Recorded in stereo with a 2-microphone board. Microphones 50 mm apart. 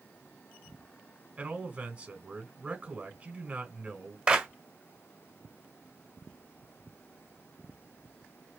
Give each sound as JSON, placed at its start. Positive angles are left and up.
{"t": 1.4, "sound": "a man speaking", "side_deg": -30, "distance_m": 1.8}
{"t": 4.3, "sound": "a clap", "side_deg": -20, "distance_m": 1.2}